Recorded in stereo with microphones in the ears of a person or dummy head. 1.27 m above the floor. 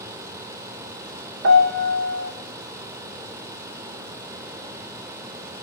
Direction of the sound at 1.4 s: 55° right (ahead or behind).